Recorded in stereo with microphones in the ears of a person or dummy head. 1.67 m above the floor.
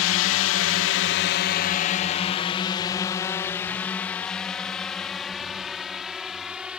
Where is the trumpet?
I don't hear a trumpet.